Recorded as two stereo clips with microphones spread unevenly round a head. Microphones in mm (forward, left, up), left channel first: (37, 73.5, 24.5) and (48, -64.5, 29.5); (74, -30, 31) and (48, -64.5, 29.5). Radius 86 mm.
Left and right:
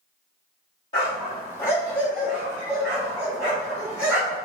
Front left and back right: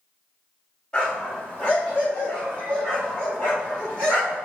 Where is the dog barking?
130° left, 1.2 m; by 4.5 s 165° right, 3.5 m.